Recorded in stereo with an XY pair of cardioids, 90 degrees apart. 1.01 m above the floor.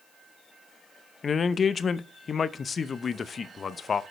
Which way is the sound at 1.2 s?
50° left.